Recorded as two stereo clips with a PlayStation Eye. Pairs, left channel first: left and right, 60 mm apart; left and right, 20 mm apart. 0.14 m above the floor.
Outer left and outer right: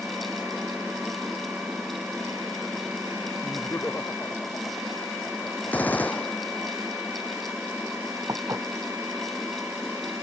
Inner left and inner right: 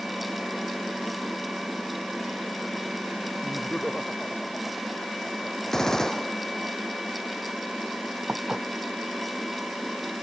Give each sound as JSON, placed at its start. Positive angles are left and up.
{"t": 3.4, "sound": "laughter", "side_deg": 35}
{"t": 5.7, "sound": "a gunshot", "side_deg": 25}
{"t": 8.3, "sound": "dishes clattering", "side_deg": -55}